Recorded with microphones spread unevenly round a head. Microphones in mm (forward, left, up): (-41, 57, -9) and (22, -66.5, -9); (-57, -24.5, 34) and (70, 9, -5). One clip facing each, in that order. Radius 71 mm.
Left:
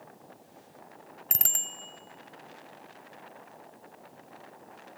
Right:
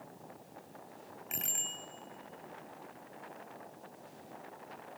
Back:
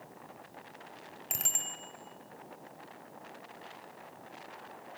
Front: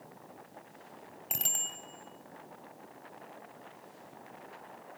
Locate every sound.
1.3 s a bicycle bell: 105° left, 3 m